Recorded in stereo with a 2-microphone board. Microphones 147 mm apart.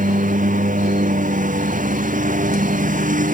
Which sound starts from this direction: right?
A lawn mower, at 0.0 s.